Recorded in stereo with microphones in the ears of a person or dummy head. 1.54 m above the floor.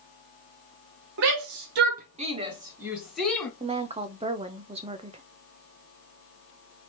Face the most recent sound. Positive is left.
turn(degrees=-15)  # may be behind; listen again after turning